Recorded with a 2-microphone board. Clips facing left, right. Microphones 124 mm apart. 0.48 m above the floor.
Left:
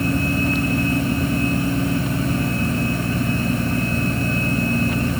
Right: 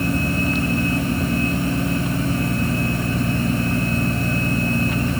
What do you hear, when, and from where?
Only background noise.